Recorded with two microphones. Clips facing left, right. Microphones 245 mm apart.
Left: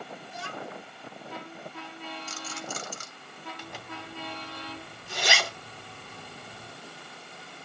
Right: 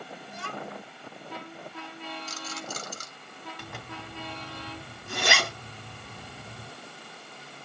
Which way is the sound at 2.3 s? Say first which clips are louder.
Even; 40° right (ahead or behind).